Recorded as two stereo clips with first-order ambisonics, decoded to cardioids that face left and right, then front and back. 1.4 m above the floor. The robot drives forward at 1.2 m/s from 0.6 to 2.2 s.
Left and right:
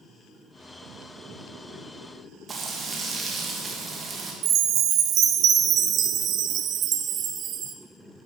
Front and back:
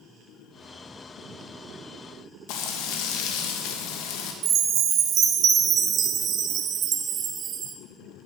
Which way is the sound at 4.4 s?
135° right.